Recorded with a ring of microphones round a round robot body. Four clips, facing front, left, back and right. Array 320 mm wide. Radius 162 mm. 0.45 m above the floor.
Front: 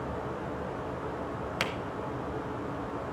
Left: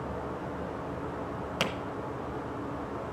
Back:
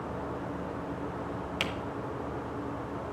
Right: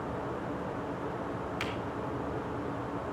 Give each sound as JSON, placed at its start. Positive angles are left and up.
{"t": 1.6, "sound": "a camera shutter", "azimuth_deg": 80, "distance_m": 0.8}